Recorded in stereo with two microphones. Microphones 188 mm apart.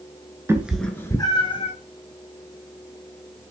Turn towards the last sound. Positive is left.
turn(degrees=35)  # may be behind; listen again after turning